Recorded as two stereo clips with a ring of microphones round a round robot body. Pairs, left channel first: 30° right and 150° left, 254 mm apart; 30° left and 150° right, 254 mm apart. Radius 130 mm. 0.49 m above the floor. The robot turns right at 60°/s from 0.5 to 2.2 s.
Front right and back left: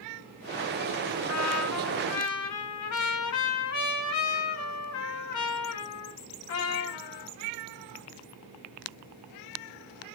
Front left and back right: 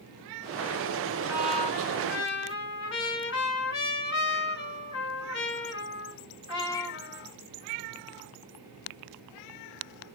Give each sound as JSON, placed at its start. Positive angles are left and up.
{"t": 1.3, "sound": "a trumpet", "azimuth_deg": -70, "distance_m": 3.0}